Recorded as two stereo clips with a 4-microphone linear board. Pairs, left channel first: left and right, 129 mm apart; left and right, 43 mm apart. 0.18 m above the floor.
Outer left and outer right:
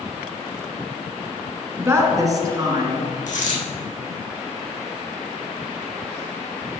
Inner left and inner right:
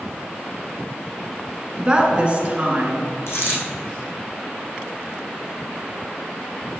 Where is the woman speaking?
20° right (ahead or behind), 1.7 m; by 3.2 s 40° right (ahead or behind), 2.5 m.